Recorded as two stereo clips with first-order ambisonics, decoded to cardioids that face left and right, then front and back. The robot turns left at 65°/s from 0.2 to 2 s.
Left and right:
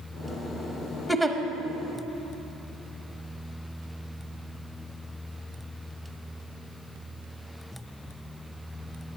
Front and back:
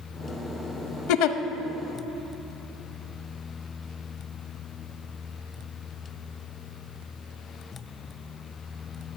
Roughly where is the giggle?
Ahead.